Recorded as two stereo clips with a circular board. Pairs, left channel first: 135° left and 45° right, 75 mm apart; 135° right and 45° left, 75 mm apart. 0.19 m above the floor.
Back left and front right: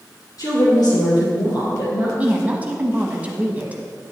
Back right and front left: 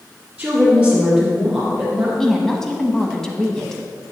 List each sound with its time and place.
0.4 s a woman speaking: 120° left, 2 m; by 2.1 s 145° left, 4 m
2.2 s a woman speaking: 65° right, 1.2 m